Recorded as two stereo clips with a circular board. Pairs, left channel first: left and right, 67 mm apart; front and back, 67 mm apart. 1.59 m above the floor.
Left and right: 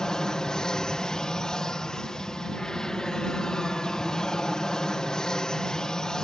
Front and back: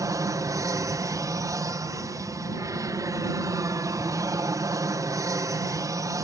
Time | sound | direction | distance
0.0 | an aircraft | 165° left | ?